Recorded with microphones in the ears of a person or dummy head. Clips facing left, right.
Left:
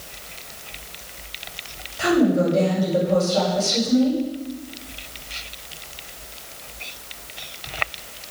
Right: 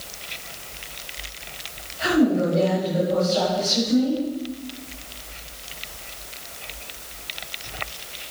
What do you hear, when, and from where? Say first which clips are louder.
2.0 s a woman speaking: left 1 dB; 60° left (ahead or behind), 9 m